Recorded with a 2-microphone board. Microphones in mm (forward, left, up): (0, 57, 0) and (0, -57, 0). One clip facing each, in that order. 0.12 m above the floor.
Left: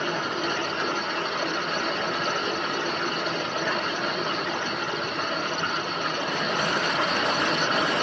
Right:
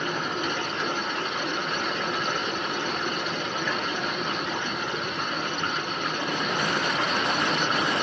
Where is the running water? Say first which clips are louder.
Left 1 dB; 75° left (ahead or behind), 1.5 m.